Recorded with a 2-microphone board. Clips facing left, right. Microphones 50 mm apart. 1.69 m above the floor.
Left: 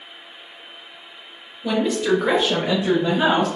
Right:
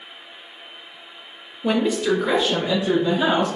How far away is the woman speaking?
About 0.6 m.